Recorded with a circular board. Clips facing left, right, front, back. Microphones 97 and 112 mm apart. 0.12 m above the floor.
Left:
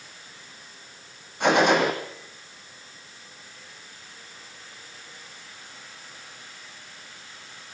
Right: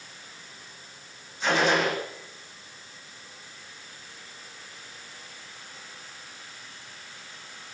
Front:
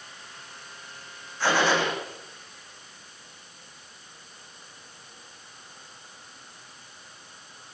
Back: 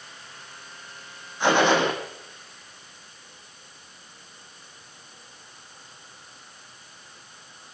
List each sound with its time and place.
1.4 s a gunshot: 110° left, 5 m